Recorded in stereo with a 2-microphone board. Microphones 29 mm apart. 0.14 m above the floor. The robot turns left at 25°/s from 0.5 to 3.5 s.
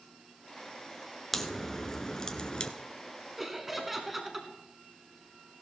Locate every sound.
1.3 s a crack: 175° left, 1.0 m; by 2.7 s 140° left, 1.0 m
3.4 s laughter: 10° right (ahead or behind), 1.2 m